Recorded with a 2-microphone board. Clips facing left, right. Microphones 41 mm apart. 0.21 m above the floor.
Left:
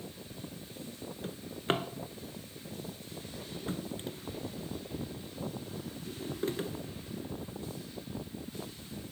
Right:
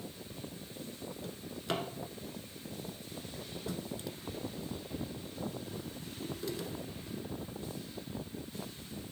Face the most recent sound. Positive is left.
turn(degrees=40)  # may be behind; listen again after turning